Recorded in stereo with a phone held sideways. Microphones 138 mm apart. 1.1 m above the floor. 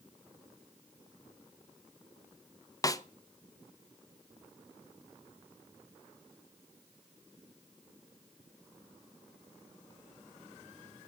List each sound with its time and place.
2.8 s a snare drum: 25° left (ahead or behind), 0.5 m